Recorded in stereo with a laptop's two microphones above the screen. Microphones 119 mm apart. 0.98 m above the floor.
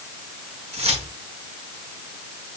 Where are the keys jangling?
65° right (ahead or behind), 6.5 m.